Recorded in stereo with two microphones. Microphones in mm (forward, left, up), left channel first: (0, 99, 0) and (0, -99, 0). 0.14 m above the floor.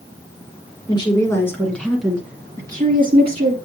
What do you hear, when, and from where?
0.9 s a woman speaking: 20° left (ahead or behind), 1.7 m; by 3.5 s 35° right (ahead or behind), 1.6 m